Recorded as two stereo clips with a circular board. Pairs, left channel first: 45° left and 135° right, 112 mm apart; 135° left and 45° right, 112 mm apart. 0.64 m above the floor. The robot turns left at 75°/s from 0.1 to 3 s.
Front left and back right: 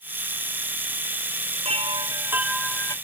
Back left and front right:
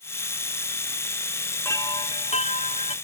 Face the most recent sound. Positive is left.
turn(degrees=105)